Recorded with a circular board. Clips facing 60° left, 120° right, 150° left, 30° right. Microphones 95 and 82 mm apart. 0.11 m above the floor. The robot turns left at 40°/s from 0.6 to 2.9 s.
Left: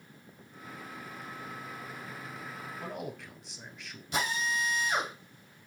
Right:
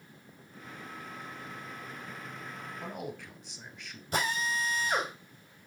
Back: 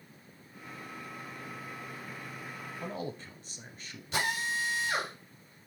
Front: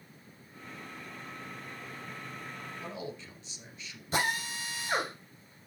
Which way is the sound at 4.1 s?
75° right.